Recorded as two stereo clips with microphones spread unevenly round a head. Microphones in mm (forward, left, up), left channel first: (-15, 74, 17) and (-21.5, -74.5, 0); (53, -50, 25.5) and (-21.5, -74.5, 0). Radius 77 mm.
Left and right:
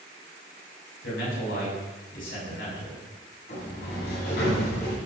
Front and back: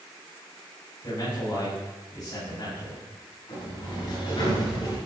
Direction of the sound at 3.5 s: 60° left.